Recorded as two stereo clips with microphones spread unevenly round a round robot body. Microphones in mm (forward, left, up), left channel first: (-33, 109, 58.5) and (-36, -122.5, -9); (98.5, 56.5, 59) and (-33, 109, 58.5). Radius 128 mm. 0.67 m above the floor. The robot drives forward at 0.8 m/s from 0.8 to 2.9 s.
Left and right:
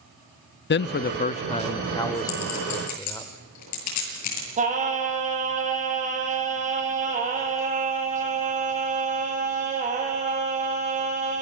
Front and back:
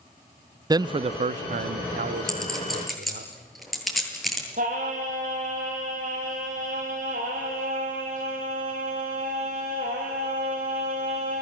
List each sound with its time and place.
0.7 s a man speaking: 120° left, 0.5 m; by 3.3 s 170° left, 1.9 m
2.3 s a clink: 65° left, 8 m; by 4.5 s 70° left, 8 m
4.6 s singing: 150° right, 4 m